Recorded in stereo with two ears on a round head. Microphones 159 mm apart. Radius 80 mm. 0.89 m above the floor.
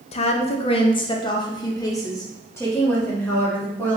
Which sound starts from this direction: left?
A woman speaking, at 0.1 s.